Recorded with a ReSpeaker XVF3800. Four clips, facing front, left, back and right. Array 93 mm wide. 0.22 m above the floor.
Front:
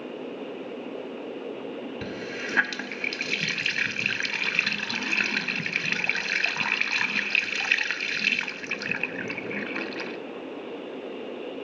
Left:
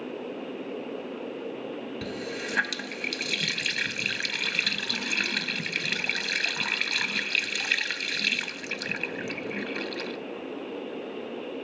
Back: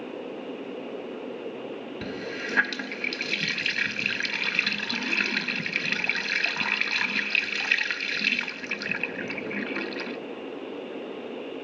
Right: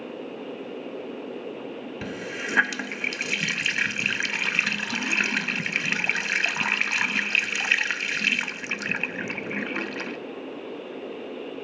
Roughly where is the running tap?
Right.